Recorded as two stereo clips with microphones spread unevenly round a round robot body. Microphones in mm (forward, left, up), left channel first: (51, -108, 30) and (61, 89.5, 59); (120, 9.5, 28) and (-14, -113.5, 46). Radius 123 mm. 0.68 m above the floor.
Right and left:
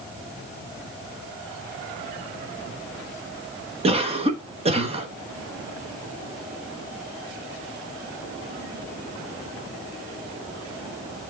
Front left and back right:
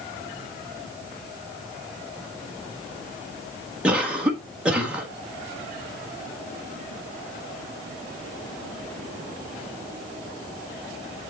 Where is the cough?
135° left, 1.3 m.